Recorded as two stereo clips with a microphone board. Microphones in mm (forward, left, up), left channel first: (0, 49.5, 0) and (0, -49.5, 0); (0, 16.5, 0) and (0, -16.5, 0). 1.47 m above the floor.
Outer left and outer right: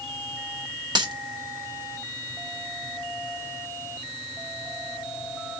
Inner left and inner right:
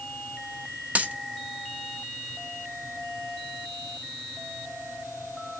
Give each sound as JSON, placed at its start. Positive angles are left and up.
{"t": 0.9, "sound": "a dropped coin", "side_deg": -45, "distance_m": 1.2}